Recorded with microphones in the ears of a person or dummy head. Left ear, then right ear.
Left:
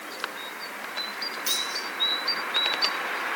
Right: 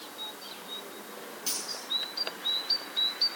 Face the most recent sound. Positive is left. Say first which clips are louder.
# left 7 dB
turn(degrees=10)  # may be behind; listen again after turning